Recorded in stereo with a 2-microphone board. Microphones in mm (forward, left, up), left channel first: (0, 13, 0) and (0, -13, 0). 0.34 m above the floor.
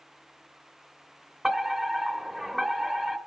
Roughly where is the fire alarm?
Centre.